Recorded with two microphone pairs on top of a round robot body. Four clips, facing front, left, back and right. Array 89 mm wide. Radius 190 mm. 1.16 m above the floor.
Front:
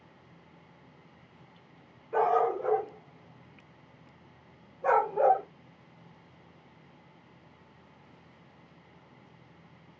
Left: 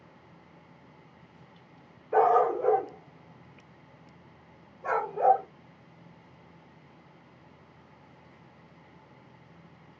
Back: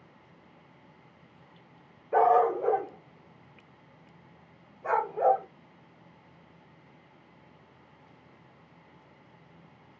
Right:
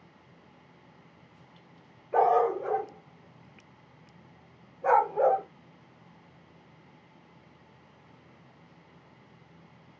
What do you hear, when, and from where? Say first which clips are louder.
2.1 s a dog barking: left 1 dB, back 4 dB; 145° left, 0.8 m; by 5.5 s 35° right, 1.4 m